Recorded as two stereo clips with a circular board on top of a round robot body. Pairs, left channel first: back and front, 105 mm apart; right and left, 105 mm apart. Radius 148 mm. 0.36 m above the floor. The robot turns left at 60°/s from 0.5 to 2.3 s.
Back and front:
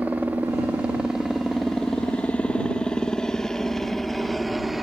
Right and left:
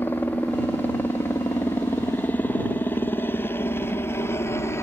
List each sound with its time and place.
0.0 s a helicopter: 50° right; by 4.8 s 85° right